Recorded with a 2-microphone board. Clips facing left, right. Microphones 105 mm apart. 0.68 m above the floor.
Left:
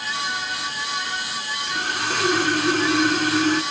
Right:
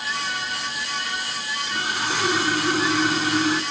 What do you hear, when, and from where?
1.7 s sawing: 5° right (ahead or behind), 1.3 m